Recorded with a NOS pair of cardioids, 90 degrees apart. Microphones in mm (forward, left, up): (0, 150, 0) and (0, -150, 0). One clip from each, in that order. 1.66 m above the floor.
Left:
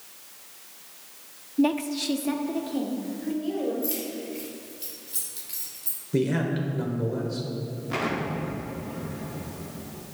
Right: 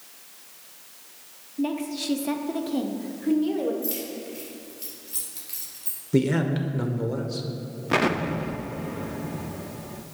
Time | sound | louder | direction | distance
1.6 | a woman speaking | left 4 dB | 30° left | 0.6 m
3.8 | keys jangling | left 1 dB | 10° right | 2 m
6.1 | a man speaking | right 2 dB | 25° right | 1.1 m
7.9 | an explosion | right 5 dB | 40° right | 0.6 m